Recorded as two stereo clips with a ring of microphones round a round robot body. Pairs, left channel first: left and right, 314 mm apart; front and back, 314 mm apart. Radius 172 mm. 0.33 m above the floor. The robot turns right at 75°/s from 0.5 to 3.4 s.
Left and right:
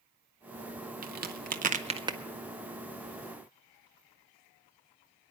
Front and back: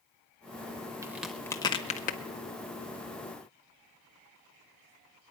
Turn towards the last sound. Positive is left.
turn(degrees=70)